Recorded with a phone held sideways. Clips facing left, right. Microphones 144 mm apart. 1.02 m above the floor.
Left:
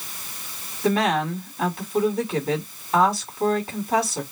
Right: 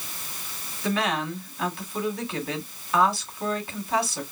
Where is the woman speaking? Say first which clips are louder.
Left 5 dB; 45° left (ahead or behind), 3.5 m.